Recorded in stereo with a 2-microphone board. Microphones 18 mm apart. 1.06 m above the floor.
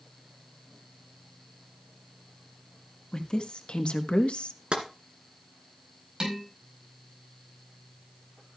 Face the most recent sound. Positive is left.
turn(degrees=-55)  # may be behind; listen again after turning